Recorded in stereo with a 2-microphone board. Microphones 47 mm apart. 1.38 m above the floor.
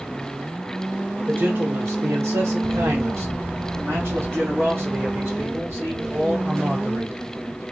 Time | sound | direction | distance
1.3 | a man speaking | 40° right (ahead or behind) | 0.9 m